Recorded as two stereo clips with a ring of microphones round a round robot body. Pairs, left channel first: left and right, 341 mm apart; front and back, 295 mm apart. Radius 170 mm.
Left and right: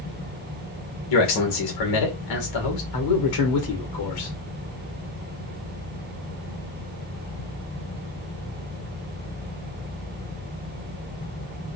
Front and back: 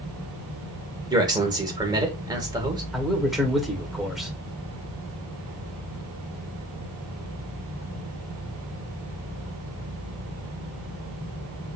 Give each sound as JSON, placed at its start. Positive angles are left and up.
{"t": 1.1, "sound": "a man speaking", "azimuth_deg": 105, "distance_m": 1.6}
{"t": 2.9, "sound": "a man speaking", "azimuth_deg": 90, "distance_m": 1.7}